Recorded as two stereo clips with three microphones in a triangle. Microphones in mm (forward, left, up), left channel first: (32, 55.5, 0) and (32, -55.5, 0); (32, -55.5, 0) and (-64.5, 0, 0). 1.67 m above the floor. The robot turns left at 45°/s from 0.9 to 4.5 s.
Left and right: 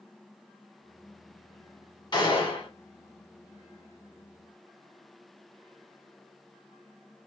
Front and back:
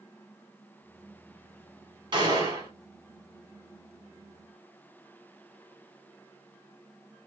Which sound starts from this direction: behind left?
A gunshot, at 2.1 s.